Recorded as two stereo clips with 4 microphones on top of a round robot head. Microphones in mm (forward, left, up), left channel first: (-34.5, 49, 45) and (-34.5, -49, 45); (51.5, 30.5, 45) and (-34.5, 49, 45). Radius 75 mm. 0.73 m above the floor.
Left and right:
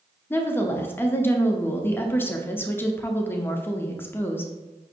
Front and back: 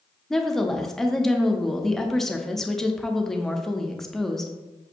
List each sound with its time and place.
0.3 s a woman speaking: 70° left, 0.6 m